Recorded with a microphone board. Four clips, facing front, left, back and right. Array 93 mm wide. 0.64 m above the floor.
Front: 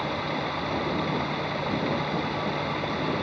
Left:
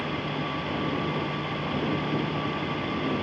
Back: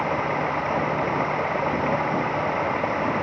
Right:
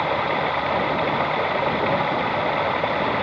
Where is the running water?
120° right.